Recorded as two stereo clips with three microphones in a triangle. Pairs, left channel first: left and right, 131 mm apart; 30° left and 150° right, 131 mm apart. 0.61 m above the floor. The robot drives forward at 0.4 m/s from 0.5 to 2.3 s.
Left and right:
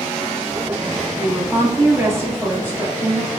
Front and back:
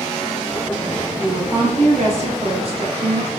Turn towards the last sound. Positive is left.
turn(degrees=-155)